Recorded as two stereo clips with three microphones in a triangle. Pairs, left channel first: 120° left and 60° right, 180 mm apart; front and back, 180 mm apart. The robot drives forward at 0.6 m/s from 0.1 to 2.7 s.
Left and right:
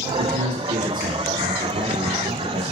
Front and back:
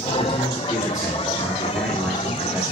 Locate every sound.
0.2 s a man speaking: 55° right, 2.5 m; by 2.7 s 100° right, 2 m